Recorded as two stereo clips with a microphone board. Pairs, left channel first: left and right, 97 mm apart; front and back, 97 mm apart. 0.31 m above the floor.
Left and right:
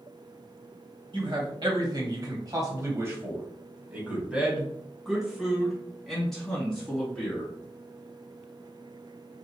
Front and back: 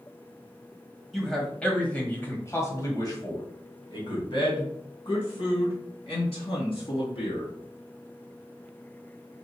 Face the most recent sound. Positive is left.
turn(degrees=10)